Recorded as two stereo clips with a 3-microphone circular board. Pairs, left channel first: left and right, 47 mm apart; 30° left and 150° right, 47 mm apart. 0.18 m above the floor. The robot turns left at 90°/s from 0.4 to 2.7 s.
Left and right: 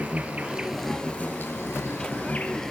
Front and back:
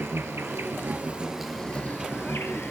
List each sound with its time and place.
0.0 s an insect: 145° right, 1.0 m; by 2.7 s 10° left, 1.0 m